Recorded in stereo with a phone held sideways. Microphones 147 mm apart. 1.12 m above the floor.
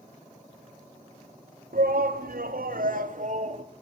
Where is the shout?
75° right (ahead or behind), 3 m; by 3.6 s 50° right (ahead or behind), 2.5 m.